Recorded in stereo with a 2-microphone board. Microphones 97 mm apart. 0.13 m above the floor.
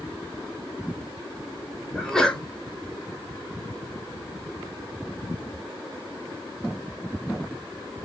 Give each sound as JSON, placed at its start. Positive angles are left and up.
{"t": 1.9, "sound": "a sneeze", "side_deg": 5, "distance_m": 1.7}